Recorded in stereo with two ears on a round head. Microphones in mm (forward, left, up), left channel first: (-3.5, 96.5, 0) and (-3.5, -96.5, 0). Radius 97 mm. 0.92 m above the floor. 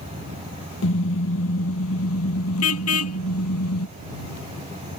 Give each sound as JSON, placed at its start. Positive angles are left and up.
{"t": 0.8, "sound": "a car horn", "side_deg": 65}